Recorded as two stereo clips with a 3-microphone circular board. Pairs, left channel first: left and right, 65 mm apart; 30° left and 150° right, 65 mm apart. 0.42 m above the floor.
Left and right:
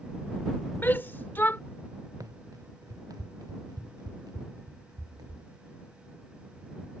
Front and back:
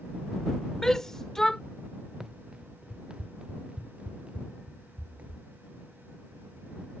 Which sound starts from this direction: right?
Running footsteps, at 2.2 s.